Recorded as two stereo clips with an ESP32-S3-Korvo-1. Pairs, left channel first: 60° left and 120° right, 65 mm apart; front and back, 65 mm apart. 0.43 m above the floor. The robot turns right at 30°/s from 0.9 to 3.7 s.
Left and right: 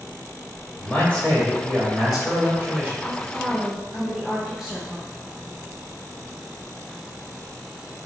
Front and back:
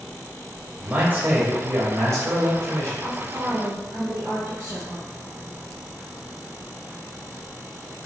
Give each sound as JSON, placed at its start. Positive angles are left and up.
{"t": 0.8, "sound": "a man speaking", "azimuth_deg": 125, "distance_m": 1.7}
{"t": 3.0, "sound": "a woman speaking", "azimuth_deg": 150, "distance_m": 0.9}